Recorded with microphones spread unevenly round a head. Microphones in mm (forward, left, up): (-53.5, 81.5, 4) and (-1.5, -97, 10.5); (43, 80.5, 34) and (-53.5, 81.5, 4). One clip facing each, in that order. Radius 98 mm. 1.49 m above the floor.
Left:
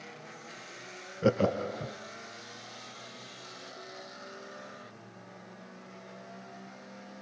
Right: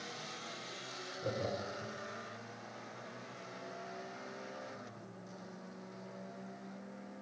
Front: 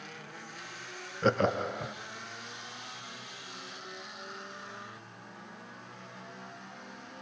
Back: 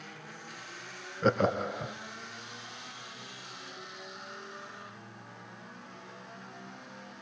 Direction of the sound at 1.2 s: 85° left.